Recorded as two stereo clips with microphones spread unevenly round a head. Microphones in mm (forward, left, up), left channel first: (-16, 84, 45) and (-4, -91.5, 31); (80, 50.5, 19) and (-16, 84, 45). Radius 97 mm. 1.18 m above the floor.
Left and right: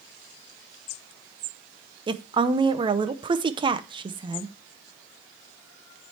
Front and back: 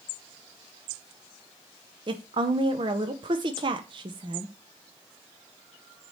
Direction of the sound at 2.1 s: 145° right.